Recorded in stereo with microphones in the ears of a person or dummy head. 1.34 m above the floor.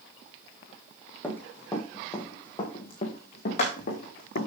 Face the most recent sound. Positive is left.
turn(degrees=60)  # may be behind; listen again after turning